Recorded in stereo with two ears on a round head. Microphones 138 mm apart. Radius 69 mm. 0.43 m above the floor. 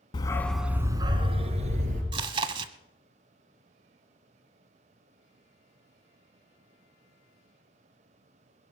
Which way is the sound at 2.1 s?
35° right (ahead or behind).